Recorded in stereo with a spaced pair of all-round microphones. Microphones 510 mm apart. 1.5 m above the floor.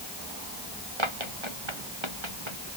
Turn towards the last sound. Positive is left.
turn(degrees=-65)  # may be behind; listen again after turning